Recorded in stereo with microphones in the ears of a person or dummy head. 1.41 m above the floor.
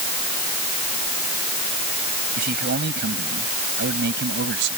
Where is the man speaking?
45° right (ahead or behind); by 4.8 s 55° right (ahead or behind).